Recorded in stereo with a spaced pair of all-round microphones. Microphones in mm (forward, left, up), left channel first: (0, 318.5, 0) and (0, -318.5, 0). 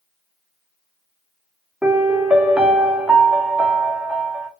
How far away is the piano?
About 0.6 m.